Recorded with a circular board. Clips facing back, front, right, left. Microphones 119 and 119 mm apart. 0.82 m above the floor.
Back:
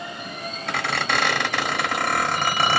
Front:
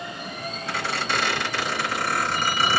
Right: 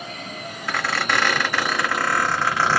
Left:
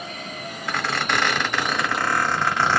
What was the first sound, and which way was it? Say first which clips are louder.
A squeak: back 3 dB, right 1 dB; 170° right.